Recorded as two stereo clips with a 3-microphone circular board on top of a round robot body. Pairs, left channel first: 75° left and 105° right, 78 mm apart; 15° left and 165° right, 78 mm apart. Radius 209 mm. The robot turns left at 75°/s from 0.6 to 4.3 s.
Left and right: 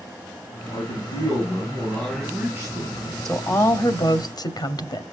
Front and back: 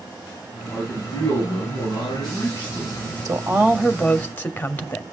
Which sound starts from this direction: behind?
A woman speaking, at 3.2 s.